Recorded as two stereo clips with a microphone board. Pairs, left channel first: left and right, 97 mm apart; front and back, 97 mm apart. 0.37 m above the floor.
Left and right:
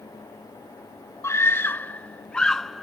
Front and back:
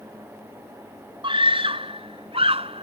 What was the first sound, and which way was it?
A scream, 150° left.